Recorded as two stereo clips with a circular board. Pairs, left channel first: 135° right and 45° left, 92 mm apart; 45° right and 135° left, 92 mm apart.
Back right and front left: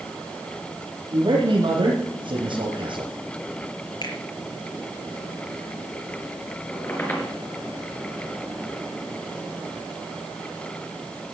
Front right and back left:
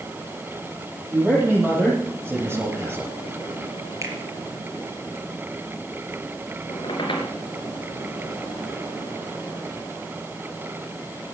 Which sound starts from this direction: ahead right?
A squeak, at 6.7 s.